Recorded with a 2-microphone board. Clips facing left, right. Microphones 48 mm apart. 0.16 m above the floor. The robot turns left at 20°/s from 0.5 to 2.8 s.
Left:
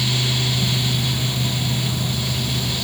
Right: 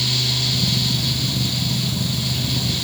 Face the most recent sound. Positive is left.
No sound to turn to.